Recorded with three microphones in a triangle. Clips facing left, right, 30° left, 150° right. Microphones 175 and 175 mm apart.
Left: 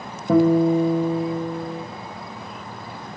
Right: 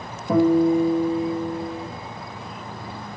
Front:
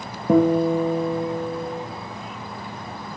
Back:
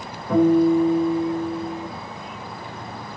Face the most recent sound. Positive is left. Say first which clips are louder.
# left 1 dB, back 1 dB
turn(degrees=35)